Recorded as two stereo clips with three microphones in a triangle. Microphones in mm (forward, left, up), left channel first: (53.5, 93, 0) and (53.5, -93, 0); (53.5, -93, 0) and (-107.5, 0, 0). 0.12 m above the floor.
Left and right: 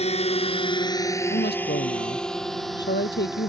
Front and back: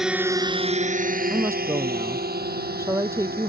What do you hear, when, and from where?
0.0 s a drone: 65° left; by 3.5 s straight behind
1.3 s a woman speaking: 75° left